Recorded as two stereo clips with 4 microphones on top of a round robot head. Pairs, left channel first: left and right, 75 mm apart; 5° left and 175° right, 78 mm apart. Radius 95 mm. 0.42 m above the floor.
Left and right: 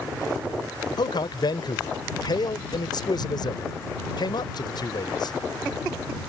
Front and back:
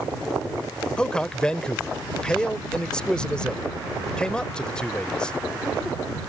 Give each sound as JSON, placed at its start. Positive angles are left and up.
{"t": 1.0, "sound": "a man speaking", "azimuth_deg": 80}